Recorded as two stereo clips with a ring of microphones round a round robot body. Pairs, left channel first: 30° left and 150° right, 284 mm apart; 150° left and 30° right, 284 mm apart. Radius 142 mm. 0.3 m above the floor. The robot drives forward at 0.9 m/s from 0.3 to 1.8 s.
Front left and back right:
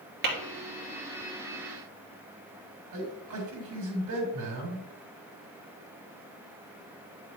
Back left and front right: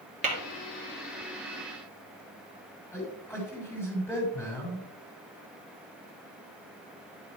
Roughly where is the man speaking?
Behind right.